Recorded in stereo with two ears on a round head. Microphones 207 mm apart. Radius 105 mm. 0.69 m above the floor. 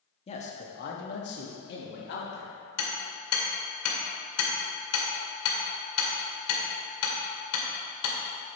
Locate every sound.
0.3 s a man speaking: 25° left (ahead or behind), 1.0 m; by 2.5 s 50° left (ahead or behind), 2.0 m
2.8 s hammering: 75° left (ahead or behind), 2.5 m